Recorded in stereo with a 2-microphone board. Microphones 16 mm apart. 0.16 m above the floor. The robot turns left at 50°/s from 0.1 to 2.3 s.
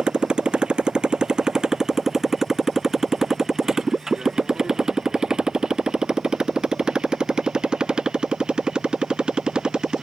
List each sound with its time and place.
0.0 s a motorcycle: 70° right (ahead or behind)